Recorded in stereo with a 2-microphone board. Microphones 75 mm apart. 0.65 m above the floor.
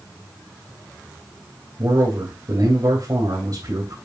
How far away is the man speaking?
About 3.5 m.